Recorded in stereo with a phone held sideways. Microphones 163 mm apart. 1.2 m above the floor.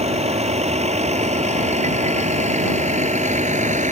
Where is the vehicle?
40° right (ahead or behind); by 3.9 s 50° right (ahead or behind).